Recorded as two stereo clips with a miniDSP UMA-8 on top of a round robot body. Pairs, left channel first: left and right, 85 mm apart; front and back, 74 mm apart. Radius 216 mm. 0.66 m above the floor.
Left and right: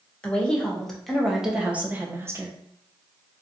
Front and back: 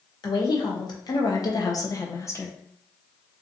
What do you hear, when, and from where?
0.2 s a woman speaking: 15° left, 1.7 m; by 2.6 s 45° right, 1.2 m